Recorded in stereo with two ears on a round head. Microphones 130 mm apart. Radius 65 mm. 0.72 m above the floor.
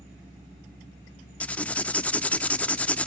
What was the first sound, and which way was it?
Writing, 10° left (ahead or behind).